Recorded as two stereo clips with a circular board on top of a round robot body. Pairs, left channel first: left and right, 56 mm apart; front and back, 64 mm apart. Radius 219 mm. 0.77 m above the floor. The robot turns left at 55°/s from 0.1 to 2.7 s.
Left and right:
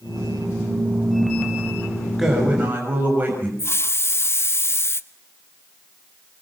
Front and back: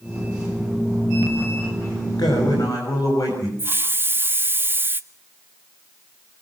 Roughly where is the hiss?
Behind left.